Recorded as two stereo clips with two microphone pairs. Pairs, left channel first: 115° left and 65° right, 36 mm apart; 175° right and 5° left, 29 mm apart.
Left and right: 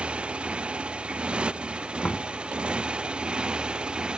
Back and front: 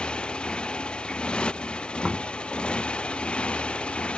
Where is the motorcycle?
125° right; by 4.2 s 130° right.